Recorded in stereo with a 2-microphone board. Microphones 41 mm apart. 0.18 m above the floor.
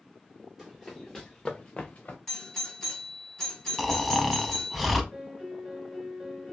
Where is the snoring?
Centre (ahead or behind), 0.6 m.